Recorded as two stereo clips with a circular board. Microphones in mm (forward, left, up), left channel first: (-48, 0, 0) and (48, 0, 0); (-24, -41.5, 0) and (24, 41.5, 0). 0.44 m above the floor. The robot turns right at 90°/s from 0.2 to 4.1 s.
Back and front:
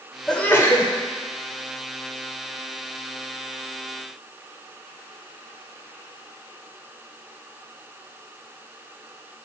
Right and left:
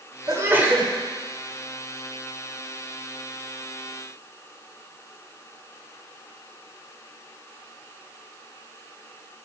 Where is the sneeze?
100° left, 1.1 m; by 0.9 s 155° left, 1.1 m.